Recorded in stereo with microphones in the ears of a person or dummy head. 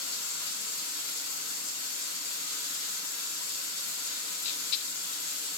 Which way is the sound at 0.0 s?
85° left.